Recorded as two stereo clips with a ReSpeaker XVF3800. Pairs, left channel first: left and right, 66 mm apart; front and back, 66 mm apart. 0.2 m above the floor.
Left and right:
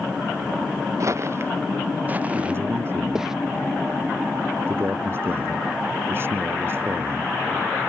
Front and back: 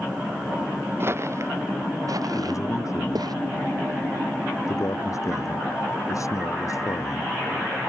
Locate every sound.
1.0 s footsteps: 130° right; by 3.3 s 175° right
2.3 s a man speaking: 35° right